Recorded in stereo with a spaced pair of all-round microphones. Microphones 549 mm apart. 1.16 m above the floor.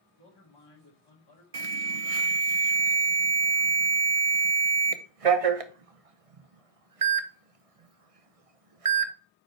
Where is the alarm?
75° right (ahead or behind), 0.8 m.